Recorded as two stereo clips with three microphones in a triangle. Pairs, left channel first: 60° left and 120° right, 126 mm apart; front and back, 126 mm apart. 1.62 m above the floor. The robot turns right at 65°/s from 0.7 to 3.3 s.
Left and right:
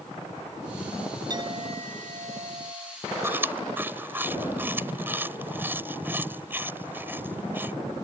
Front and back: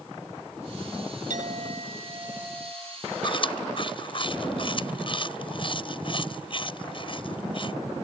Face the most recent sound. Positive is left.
turn(degrees=-45)